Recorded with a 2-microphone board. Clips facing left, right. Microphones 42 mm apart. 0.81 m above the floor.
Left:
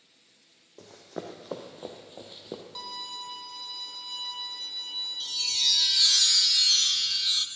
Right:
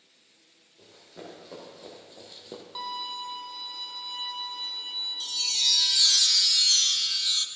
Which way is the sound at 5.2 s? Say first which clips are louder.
Even; 5° left (ahead or behind).